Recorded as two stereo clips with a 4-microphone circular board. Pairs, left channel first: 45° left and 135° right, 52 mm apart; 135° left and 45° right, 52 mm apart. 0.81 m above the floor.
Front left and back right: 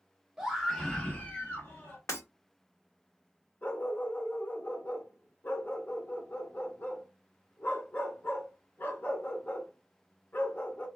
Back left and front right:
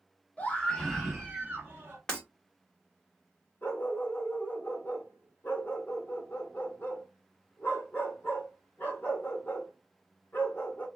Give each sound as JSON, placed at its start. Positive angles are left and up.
{"t": 0.4, "sound": "a scream", "azimuth_deg": 155, "distance_m": 0.8}
{"t": 2.1, "sound": "breaking glass", "azimuth_deg": 60, "distance_m": 1.4}
{"t": 3.6, "sound": "a dog barking", "azimuth_deg": 90, "distance_m": 0.8}